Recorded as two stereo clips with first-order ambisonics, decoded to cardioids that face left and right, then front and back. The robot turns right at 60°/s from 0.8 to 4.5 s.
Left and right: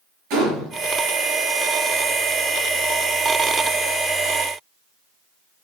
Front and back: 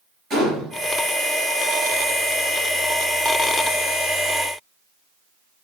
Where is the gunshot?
115° right, 5 m.